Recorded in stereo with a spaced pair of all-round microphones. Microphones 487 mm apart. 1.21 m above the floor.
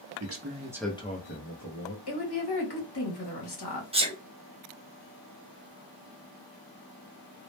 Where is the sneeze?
10° right (ahead or behind), 0.6 m.